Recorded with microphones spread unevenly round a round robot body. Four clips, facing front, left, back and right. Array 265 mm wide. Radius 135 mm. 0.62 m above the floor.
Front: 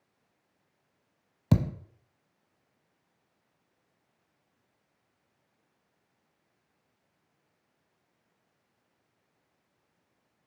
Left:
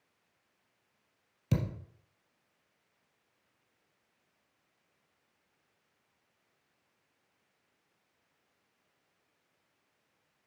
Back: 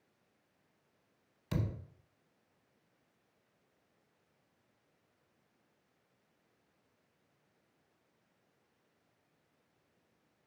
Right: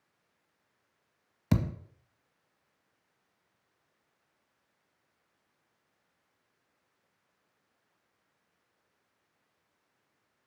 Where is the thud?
15° right, 1.0 m.